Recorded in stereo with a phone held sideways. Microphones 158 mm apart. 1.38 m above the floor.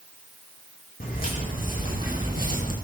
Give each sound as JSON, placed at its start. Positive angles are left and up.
{"t": 1.0, "sound": "footsteps", "side_deg": 75, "distance_m": 4.5}